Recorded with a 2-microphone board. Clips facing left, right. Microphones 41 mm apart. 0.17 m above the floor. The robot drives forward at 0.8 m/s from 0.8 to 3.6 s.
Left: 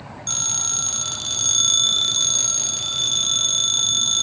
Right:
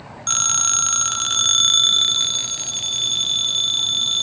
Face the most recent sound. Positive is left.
turn(degrees=-15)  # may be behind; listen again after turning